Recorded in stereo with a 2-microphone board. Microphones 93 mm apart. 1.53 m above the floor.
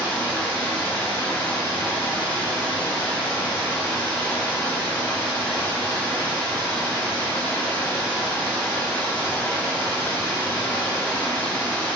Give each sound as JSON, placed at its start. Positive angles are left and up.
{"t": 0.0, "sound": "running water", "side_deg": 20, "distance_m": 1.8}